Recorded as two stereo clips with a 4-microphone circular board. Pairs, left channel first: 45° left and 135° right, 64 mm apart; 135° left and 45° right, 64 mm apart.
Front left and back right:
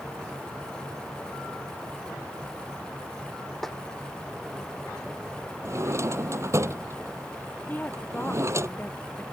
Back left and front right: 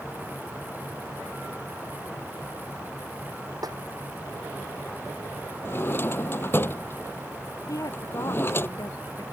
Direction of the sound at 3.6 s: 40° right.